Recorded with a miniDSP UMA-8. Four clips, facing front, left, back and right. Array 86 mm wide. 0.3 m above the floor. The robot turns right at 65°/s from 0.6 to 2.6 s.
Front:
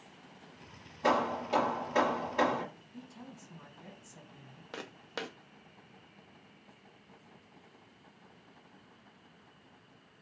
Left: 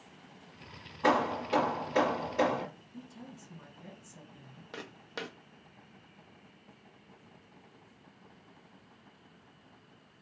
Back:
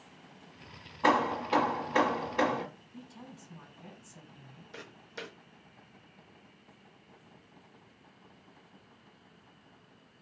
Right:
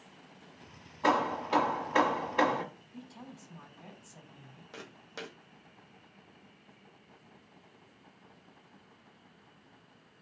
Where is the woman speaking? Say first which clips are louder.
Even, even; 95° right, 1.7 m.